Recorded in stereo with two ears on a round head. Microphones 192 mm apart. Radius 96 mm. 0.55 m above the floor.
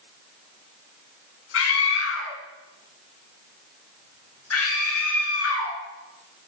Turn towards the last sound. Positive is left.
turn(degrees=75)  # may be behind; listen again after turning